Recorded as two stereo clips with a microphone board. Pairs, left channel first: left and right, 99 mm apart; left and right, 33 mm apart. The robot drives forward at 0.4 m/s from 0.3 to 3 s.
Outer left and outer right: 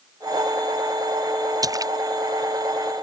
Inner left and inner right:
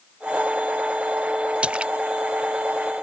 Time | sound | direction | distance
1.6 | a splash | 35° right (ahead or behind) | ?